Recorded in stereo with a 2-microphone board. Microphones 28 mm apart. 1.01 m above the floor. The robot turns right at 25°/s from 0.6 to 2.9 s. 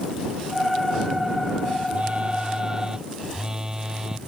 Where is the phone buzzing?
45° right (ahead or behind); by 4.2 s 20° right (ahead or behind).